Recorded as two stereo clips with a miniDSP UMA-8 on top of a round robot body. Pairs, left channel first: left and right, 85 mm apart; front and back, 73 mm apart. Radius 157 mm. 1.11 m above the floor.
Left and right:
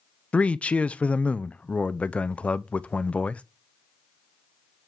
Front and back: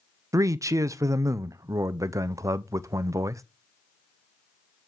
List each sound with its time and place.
0.3 s a man speaking: 160° left, 0.5 m